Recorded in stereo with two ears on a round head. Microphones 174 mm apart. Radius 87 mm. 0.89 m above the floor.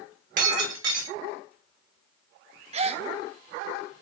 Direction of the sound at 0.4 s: 45° right (ahead or behind).